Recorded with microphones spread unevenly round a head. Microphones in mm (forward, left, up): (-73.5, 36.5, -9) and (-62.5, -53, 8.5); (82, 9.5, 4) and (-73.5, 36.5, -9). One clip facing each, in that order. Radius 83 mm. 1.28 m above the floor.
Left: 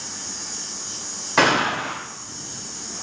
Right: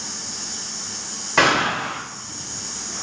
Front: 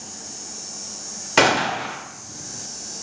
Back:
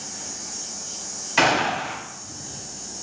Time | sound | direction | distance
1.4 | a gunshot | 5° left | 2 m